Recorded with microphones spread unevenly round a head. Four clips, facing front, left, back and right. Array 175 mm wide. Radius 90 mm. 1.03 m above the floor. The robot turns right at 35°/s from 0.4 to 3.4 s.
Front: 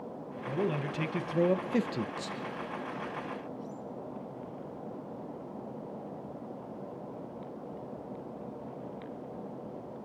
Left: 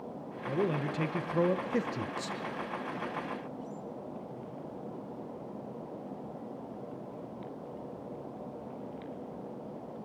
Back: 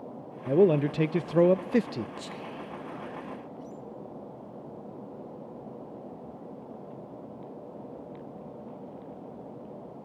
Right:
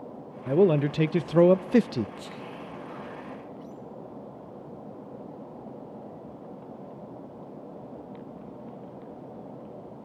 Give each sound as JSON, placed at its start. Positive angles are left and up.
{"t": 0.5, "sound": "a man speaking", "azimuth_deg": -135, "distance_m": 0.5}
{"t": 2.2, "sound": "whispering", "azimuth_deg": 180, "distance_m": 1.0}